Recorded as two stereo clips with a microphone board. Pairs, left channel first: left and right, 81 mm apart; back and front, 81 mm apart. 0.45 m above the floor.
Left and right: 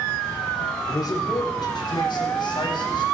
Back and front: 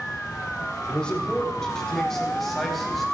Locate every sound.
0.9 s a man speaking: 105° left, 2.0 m; by 3.0 s 90° left, 3 m